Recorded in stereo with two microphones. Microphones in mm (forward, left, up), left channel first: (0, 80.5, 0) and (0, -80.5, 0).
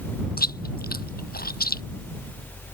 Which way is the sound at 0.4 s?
70° left (ahead or behind).